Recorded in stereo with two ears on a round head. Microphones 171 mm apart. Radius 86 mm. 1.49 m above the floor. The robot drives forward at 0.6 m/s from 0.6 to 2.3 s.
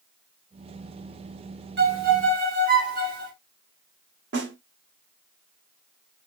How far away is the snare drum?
About 1.0 m.